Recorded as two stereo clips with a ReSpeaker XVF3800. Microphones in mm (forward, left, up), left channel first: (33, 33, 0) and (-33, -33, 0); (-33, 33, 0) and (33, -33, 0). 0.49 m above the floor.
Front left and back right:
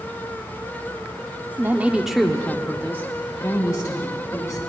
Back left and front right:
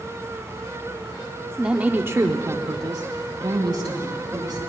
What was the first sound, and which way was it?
A woman speaking, 125° right.